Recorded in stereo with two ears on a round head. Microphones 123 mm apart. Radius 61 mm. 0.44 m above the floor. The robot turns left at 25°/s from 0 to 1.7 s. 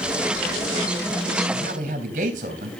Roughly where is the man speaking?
Right.